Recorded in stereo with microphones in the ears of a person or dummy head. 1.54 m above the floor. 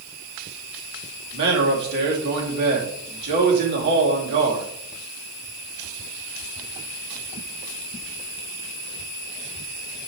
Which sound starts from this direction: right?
A man speaking, at 1.3 s.